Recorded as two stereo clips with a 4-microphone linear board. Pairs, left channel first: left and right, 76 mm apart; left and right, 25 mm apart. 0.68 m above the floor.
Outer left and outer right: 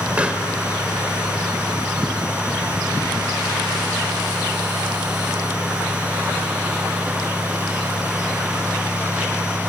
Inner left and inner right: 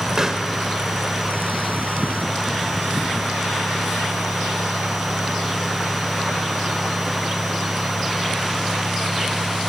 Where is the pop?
15° right (ahead or behind), 2.0 m.